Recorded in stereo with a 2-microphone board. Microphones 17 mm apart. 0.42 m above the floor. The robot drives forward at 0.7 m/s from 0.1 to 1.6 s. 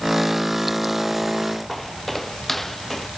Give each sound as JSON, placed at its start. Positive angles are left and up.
{"t": 1.7, "sound": "footsteps", "side_deg": 5}